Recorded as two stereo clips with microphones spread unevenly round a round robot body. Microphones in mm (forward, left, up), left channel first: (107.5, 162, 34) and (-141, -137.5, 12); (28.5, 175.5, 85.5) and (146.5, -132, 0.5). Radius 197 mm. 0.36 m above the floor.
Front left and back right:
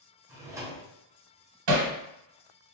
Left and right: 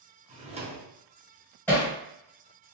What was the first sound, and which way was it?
A drawer, 60° right.